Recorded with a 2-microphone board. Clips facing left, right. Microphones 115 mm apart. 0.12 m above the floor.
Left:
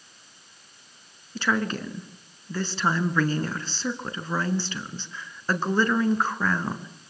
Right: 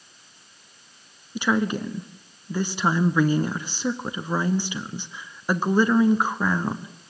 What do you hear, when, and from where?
1.4 s a woman speaking: 15° right (ahead or behind), 1.2 m